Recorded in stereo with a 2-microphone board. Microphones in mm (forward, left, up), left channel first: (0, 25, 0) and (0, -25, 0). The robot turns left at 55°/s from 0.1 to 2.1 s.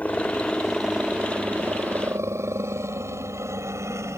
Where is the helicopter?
30° left (ahead or behind); by 4.2 s 70° right (ahead or behind).